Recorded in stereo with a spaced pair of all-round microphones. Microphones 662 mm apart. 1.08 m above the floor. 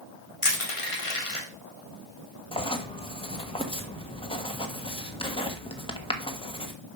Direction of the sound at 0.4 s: 50° left (ahead or behind).